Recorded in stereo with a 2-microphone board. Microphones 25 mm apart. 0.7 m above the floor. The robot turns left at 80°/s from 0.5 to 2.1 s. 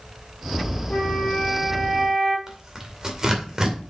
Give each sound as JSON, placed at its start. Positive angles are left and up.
{"t": 0.9, "sound": "a flute", "azimuth_deg": 70, "distance_m": 4.5}
{"t": 2.5, "sound": "tearing paper", "side_deg": -20, "distance_m": 2.0}